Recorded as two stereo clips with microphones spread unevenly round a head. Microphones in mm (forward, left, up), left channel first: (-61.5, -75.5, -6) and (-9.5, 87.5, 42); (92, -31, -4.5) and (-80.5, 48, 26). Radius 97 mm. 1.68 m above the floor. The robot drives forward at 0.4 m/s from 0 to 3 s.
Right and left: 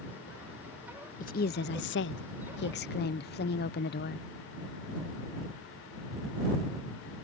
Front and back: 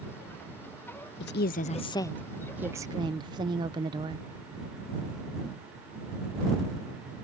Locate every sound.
1.2 s a woman speaking: 50° right; by 4.2 s 145° right